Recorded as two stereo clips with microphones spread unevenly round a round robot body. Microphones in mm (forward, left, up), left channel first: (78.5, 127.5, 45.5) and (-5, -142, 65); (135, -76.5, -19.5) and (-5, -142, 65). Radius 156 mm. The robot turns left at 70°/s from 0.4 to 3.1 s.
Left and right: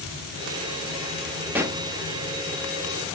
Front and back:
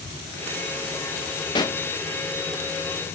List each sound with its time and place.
1.6 s a pop: 20° right, 0.7 m; by 1.8 s 40° right, 0.7 m